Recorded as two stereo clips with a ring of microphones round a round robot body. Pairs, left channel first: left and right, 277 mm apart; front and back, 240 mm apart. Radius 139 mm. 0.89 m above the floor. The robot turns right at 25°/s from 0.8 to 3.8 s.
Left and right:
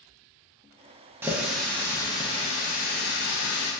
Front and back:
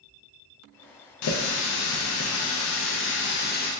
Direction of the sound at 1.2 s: 10° right.